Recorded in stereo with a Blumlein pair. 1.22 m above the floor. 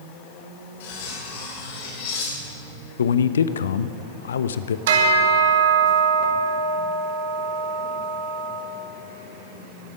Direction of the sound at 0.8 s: 55° left.